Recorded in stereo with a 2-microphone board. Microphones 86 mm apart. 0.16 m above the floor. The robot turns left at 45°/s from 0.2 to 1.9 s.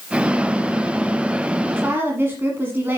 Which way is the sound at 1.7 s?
25° right (ahead or behind).